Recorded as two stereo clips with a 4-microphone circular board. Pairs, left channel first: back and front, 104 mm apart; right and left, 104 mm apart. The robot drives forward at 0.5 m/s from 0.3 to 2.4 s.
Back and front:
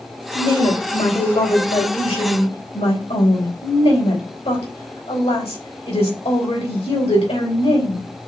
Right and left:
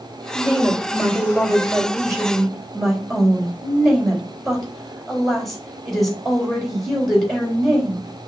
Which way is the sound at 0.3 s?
Straight behind.